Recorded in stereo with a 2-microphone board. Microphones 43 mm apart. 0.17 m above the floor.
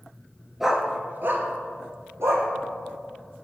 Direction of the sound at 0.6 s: 5° right (ahead or behind).